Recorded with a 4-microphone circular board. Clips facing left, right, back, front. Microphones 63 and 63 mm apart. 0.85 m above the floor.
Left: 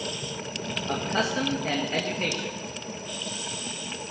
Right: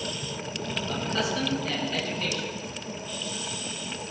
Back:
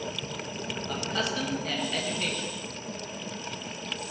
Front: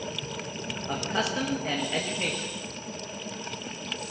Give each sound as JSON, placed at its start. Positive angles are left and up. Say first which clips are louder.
{"t": 0.9, "sound": "a man speaking", "louder": "left 3 dB, front 3 dB", "azimuth_deg": 55, "distance_m": 1.2}